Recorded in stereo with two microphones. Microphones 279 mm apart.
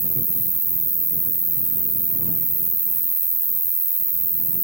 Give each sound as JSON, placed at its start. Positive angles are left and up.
{"t": 0.0, "sound": "an insect", "side_deg": -40}